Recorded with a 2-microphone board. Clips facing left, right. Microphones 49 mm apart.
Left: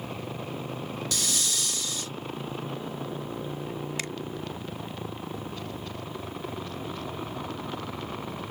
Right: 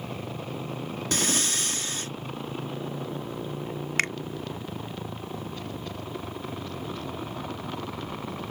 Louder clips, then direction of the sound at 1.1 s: Right 6 dB; 45° right (ahead or behind).